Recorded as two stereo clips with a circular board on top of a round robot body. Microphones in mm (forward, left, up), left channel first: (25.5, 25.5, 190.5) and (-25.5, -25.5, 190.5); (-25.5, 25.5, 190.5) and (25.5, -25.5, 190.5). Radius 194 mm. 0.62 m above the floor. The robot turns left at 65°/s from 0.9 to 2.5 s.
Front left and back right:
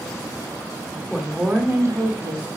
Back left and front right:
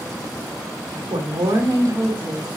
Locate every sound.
1.1 s a woman speaking: 45° right, 2 m; by 2.5 s 135° right, 2 m